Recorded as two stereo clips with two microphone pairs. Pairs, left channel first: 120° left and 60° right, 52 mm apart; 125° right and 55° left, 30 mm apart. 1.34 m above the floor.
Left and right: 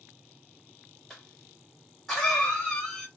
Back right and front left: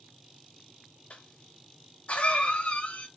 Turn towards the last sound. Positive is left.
turn(degrees=-155)